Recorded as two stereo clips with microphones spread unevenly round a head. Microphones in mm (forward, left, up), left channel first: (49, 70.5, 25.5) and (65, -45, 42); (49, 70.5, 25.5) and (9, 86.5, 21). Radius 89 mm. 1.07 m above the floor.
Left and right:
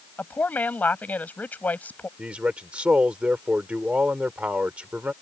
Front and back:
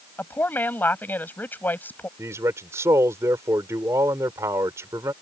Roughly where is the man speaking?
Behind.